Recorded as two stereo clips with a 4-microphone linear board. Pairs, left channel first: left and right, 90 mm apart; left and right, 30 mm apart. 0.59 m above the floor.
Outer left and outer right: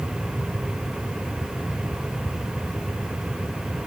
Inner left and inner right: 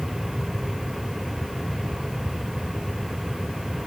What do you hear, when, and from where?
Only background noise.